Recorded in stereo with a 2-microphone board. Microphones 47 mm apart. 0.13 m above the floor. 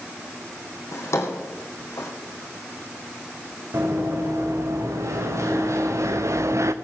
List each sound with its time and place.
0.9 s a drawer: 75° left (ahead or behind), 3 m
3.7 s running footsteps: 80° right, 4 m